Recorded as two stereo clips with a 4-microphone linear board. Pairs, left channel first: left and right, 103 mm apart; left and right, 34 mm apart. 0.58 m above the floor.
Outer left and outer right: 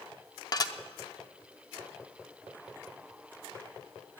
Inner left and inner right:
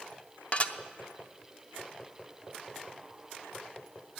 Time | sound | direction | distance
0.5 | dishes clattering | 35° left (ahead or behind) | 0.6 m